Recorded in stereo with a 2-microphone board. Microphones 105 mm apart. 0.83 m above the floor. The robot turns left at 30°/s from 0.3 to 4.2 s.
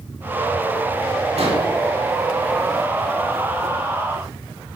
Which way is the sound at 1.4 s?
85° right.